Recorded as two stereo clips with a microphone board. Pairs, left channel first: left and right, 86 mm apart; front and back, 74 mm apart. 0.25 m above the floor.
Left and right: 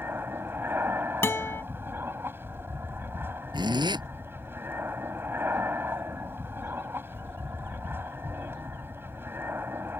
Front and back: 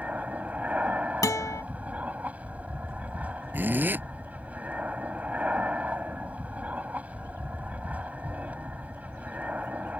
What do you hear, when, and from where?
0.0 s an aircraft: 130° right
1.2 s a guitar: 30° left
3.5 s a zipper: 115° right